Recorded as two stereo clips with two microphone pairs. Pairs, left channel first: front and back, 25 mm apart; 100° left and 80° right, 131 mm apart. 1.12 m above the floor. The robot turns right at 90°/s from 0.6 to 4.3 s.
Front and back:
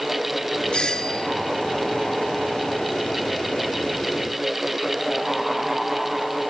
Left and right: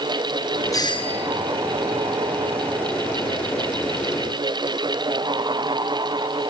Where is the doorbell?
40° left, 1.7 m; by 1.3 s 95° left, 1.7 m.